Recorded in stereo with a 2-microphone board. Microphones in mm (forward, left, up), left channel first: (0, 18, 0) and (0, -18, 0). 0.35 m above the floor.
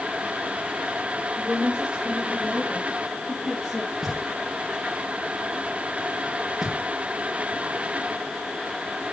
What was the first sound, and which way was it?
A woman speaking, 35° right (ahead or behind).